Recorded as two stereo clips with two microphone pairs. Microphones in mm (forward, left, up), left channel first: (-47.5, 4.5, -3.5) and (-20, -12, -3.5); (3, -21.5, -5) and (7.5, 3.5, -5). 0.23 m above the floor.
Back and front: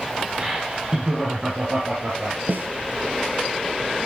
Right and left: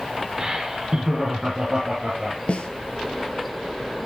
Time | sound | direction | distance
0.4 | laughter | 35° left | 1.2 m
2.5 | a snare drum | 60° right | 0.8 m